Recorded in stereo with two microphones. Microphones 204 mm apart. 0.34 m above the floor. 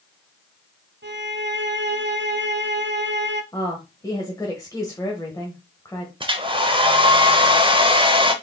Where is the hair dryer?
25° right (ahead or behind), 0.7 m.